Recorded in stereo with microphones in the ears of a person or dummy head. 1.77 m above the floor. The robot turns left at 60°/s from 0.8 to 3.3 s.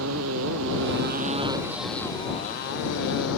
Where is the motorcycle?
80° right; by 3.4 s 80° left.